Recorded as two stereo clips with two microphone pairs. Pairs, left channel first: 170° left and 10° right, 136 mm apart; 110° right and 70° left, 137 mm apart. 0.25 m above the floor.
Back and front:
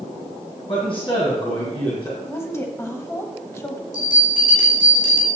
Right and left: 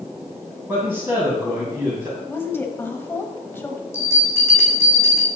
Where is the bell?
Straight behind, 2.5 m.